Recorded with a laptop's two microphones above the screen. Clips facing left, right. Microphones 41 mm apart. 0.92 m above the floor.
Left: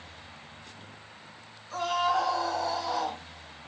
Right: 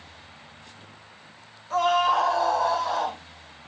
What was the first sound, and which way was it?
A scream, 85° right.